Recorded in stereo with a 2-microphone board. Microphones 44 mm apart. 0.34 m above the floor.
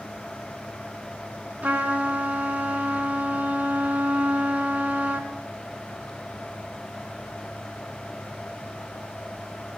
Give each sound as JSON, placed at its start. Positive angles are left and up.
{"t": 1.6, "sound": "a trumpet", "side_deg": -40, "distance_m": 3.5}